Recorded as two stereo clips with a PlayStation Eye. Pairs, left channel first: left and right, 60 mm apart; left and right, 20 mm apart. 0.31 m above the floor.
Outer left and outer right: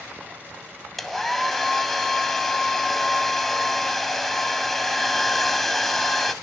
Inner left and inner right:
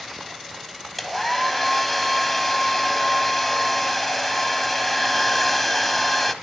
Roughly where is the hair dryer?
Centre.